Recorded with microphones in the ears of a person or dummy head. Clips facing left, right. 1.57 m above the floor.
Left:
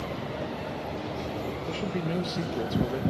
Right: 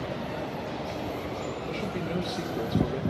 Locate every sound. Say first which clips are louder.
1.7 s a man speaking: left 2 dB; 15° left (ahead or behind), 1.2 m